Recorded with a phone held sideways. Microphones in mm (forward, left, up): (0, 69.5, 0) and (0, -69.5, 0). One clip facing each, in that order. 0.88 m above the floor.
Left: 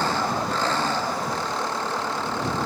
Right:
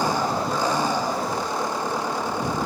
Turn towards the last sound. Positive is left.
turn(degrees=-15)  # may be behind; listen again after turning